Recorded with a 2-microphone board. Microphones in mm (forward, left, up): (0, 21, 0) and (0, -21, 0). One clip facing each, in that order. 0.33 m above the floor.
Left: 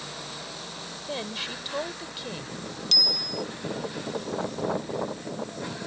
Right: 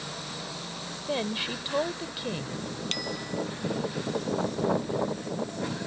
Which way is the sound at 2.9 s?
40° right (ahead or behind).